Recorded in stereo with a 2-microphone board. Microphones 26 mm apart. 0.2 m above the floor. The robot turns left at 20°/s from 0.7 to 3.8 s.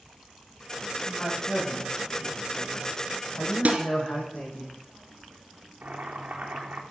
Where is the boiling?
75° right (ahead or behind), 3.5 m.